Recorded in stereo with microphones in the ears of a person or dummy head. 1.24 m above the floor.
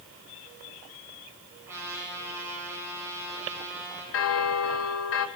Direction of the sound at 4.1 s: 75° left (ahead or behind).